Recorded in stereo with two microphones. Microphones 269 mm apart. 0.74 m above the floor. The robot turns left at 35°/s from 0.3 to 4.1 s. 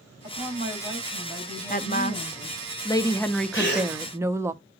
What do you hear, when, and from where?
0.2 s a woman speaking: 155° right, 5.5 m; by 2.7 s 120° left, 5.5 m
1.7 s a woman speaking: 65° left, 0.6 m; by 4.5 s 15° right, 0.6 m
3.5 s a gasp: 45° left (ahead or behind), 2 m; by 3.9 s 30° left (ahead or behind), 2 m